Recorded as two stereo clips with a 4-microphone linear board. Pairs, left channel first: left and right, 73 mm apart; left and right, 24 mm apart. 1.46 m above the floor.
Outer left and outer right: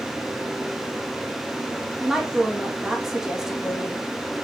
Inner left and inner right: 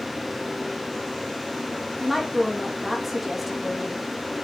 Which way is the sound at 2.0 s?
5° right (ahead or behind).